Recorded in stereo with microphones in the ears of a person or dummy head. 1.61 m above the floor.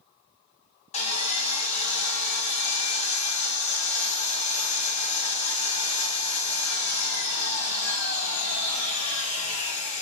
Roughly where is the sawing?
Left.